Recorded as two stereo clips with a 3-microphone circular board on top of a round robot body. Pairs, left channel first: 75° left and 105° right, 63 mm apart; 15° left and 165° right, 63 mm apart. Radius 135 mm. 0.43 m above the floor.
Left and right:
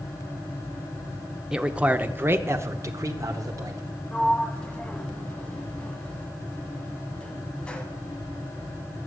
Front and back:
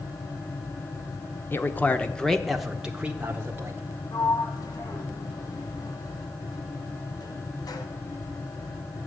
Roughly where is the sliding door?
Ahead.